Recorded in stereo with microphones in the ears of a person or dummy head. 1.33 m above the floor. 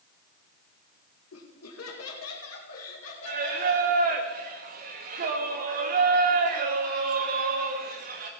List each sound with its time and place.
1.3 s laughter: 80° left, 1.6 m
3.2 s singing: 40° right (ahead or behind), 0.8 m